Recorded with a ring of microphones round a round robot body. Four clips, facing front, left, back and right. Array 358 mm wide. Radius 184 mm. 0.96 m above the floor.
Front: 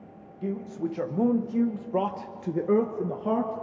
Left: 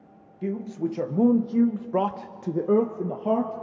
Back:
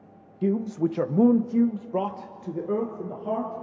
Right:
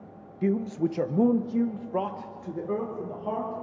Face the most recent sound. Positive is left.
turn(degrees=55)